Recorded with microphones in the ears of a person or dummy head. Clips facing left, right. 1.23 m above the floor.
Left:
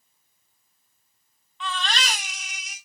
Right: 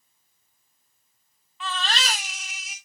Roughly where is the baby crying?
Centre.